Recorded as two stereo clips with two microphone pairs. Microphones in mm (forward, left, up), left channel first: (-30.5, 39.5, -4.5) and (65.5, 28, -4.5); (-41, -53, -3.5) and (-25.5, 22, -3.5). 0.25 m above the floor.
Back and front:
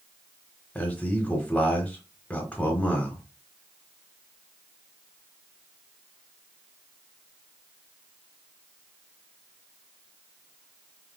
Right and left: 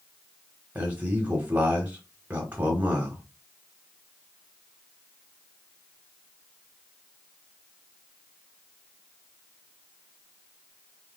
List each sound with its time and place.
0.8 s a man speaking: 115° left, 1.1 m